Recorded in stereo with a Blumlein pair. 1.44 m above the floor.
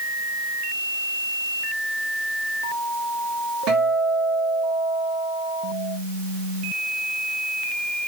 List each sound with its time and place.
3.7 s a guitar: 35° right, 2.5 m